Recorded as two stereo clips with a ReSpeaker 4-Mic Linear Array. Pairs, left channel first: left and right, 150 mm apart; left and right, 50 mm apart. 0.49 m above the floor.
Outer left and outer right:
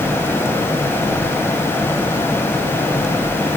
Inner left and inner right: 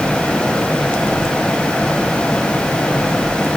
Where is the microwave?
I don't hear a microwave.